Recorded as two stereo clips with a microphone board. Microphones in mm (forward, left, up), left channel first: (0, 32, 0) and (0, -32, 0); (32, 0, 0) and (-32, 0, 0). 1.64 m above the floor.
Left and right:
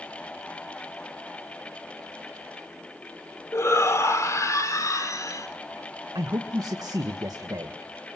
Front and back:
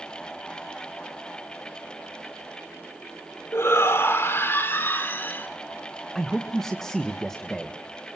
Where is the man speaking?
85° right, 1.6 m.